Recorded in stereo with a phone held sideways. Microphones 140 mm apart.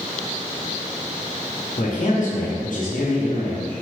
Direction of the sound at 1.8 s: 70° left (ahead or behind).